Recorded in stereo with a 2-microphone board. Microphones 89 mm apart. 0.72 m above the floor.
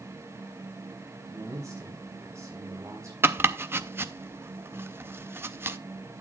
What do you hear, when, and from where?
1.2 s a man speaking: 35° right (ahead or behind), 4.5 m
3.2 s chopping: 25° right (ahead or behind), 0.5 m